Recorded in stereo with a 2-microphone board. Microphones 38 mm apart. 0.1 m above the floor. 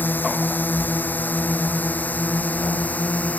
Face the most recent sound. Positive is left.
turn(degrees=45)  # may be behind; listen again after turning